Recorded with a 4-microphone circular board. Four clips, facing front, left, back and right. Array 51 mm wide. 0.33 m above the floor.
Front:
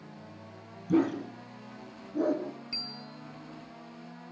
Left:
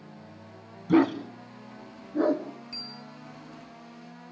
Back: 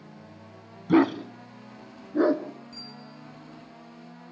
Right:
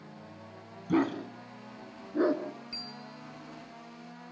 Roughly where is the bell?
Ahead.